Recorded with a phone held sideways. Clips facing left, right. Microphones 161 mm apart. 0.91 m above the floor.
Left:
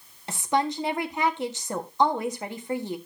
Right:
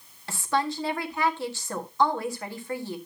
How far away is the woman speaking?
About 1.5 m.